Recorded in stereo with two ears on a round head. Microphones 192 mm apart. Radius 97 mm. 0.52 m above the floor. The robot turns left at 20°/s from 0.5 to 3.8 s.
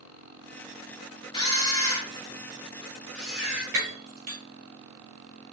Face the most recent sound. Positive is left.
turn(degrees=-50)  # may be behind; listen again after turning